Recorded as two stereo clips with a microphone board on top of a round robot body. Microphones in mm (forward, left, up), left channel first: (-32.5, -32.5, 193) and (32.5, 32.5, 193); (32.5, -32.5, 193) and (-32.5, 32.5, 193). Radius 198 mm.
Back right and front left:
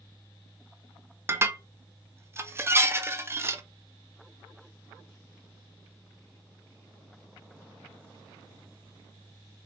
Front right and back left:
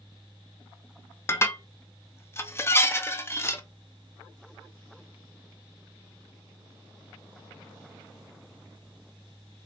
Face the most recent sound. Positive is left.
turn(degrees=0)